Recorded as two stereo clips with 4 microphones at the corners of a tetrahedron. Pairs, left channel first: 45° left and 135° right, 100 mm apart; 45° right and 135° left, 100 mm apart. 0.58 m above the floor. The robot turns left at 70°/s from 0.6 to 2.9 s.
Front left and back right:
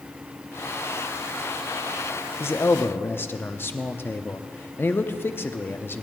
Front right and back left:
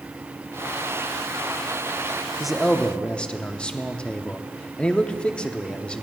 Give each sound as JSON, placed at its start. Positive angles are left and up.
{"t": 2.4, "sound": "a man speaking", "azimuth_deg": 55, "distance_m": 0.7}